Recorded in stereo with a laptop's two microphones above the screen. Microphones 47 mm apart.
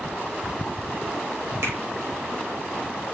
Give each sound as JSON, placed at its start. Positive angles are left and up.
{"t": 1.6, "sound": "a finger snap", "side_deg": -70, "distance_m": 4.0}